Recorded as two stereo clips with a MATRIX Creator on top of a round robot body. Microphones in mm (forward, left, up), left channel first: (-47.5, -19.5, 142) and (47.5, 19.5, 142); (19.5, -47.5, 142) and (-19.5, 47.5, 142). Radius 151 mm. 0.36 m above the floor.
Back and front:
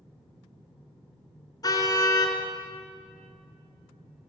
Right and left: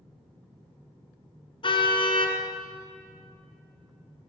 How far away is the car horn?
About 2.5 m.